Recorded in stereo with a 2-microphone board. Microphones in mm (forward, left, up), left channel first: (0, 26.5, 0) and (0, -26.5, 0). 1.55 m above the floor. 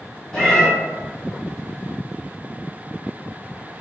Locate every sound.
0.3 s a cat meowing: 10° left (ahead or behind), 2.0 m